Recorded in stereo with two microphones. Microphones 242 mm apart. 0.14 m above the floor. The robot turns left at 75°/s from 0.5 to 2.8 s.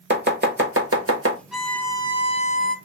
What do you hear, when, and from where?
0.1 s chopping: 45° right (ahead or behind), 0.9 m; by 1.4 s 55° right (ahead or behind), 0.9 m
1.5 s a violin: 5° right (ahead or behind), 0.6 m; by 2.8 s 30° left (ahead or behind), 0.6 m